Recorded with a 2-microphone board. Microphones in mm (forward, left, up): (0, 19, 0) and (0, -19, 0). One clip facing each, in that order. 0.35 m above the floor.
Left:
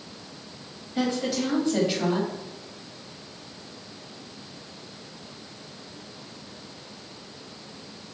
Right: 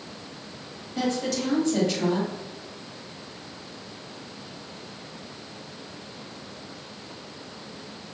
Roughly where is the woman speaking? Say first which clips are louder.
Left 1 dB; centre.